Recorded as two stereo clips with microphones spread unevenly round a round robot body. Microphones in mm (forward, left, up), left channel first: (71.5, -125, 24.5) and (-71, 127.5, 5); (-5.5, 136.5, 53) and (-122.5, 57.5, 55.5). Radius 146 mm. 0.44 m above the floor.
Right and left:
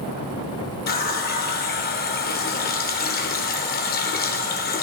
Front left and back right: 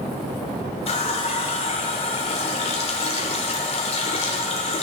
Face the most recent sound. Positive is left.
turn(degrees=-5)